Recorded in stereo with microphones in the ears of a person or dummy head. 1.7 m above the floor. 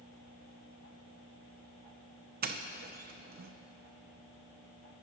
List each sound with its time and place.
2.4 s a doorbell: 55° right (ahead or behind), 0.7 m